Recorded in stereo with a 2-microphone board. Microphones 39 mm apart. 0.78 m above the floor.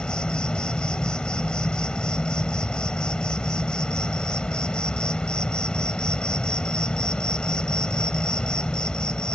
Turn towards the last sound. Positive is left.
turn(degrees=20)  # may be behind; listen again after turning